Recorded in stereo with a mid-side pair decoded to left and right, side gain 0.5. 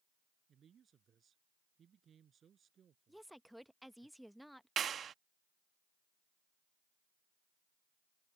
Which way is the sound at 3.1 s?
Straight ahead.